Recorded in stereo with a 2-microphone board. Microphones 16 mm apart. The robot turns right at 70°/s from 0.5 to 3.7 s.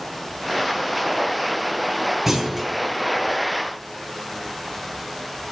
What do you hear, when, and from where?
2.3 s a clunk: 20° right, 1.6 m; by 2.7 s 10° left, 1.6 m